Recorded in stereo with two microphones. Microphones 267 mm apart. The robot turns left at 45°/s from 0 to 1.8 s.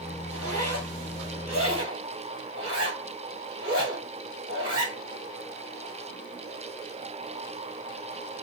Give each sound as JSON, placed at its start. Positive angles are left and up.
{"t": 0.3, "sound": "a zipper", "side_deg": -55, "distance_m": 1.7}